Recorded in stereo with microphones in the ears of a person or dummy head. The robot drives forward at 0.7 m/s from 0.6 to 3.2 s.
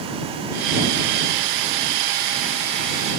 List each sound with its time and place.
Only background noise.